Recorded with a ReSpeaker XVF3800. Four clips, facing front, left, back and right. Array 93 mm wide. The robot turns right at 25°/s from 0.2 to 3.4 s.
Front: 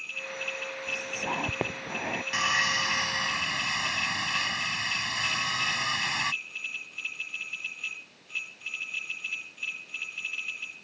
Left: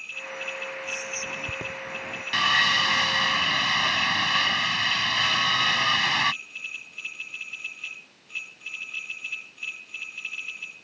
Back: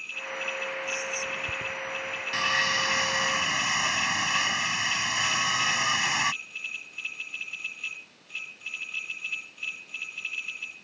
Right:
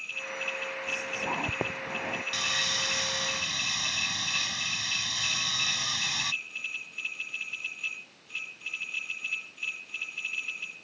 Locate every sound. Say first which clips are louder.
0.9 s whispering: right 1 dB, even; 50° right; by 2.2 s 15° right
2.3 s sawing: left 10 dB, back 1 dB; 80° left; by 6.3 s 105° left